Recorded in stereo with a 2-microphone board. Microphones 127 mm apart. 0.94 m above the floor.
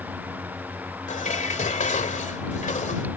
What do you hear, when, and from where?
1.1 s dishes clattering: 75° left (ahead or behind)